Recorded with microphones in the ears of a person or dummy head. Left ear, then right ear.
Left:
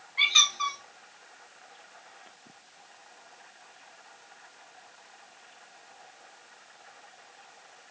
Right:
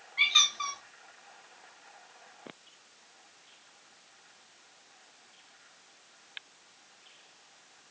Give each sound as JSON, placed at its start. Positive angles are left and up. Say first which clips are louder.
{"t": 0.2, "sound": "a squeak", "louder": "left 2 dB", "side_deg": 0, "distance_m": 0.8}